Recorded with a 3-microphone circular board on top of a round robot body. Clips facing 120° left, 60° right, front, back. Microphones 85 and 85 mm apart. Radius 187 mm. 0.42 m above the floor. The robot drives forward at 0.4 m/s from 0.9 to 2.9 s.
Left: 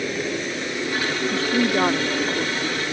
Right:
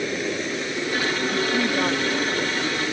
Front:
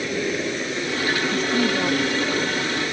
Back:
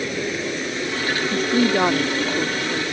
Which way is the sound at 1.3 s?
175° left.